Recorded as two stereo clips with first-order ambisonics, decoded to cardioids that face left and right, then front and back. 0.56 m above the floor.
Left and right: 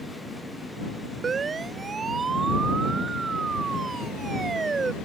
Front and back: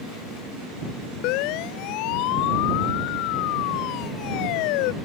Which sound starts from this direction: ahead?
A siren, at 1.2 s.